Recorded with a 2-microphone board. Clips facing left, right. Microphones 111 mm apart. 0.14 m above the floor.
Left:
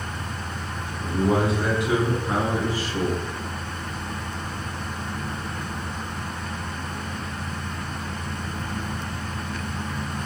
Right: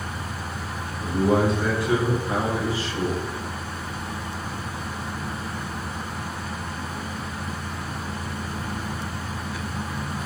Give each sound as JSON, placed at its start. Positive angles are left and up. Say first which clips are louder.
{"t": 1.0, "sound": "a man speaking", "louder": "right 1 dB", "side_deg": -15, "distance_m": 1.1}